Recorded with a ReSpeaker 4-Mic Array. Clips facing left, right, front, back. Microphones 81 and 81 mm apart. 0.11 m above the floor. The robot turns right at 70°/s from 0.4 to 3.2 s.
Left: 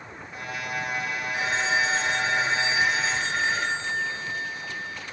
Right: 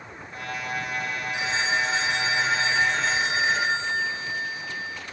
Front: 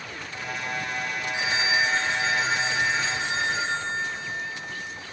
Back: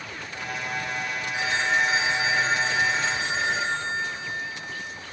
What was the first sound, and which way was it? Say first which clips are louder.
A phone ringing: left 1 dB, back 1 dB; 60° left.